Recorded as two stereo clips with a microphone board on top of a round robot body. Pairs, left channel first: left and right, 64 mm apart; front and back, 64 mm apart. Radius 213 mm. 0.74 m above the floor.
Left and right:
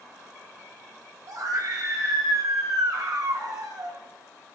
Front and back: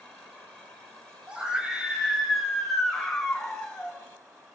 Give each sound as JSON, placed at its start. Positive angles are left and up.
{"t": 1.3, "sound": "a scream", "azimuth_deg": -105, "distance_m": 3.5}